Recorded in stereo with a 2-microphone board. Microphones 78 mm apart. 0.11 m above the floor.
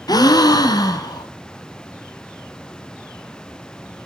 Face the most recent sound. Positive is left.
turn(degrees=55)  # may be behind; listen again after turning